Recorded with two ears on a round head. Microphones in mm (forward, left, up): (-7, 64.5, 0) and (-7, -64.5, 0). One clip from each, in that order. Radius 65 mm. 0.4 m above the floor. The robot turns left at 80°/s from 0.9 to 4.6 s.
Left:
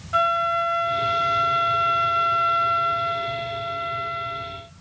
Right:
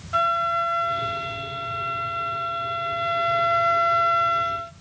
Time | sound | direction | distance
0.1 | a flute | 175° left | 0.6 m